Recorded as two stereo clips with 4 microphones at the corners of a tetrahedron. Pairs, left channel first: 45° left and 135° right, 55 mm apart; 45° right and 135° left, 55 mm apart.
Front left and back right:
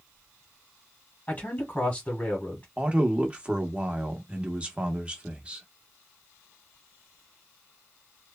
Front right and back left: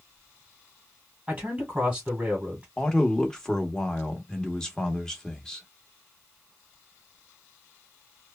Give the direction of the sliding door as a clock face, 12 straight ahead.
No sliding door in this recording.